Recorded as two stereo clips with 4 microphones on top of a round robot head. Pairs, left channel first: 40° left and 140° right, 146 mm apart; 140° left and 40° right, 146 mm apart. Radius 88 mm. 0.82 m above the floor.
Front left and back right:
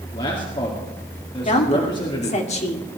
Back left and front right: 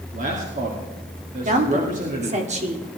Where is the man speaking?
15° right, 2.5 m.